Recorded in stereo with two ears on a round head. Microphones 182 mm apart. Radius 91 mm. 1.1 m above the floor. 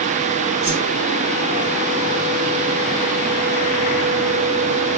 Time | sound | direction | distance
0.6 | a whoosh | 55° right (ahead or behind) | 3.5 m